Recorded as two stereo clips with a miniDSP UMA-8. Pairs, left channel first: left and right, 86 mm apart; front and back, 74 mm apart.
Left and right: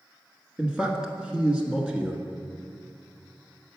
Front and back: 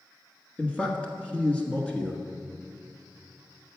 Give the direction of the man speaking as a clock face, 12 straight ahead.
1 o'clock.